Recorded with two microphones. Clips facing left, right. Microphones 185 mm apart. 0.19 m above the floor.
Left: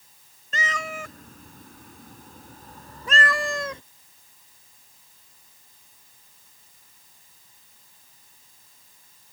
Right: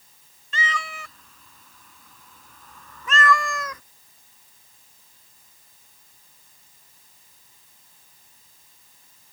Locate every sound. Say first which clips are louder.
0.5 s a cat meowing: even; 45° left (ahead or behind); by 3.8 s 30° left (ahead or behind)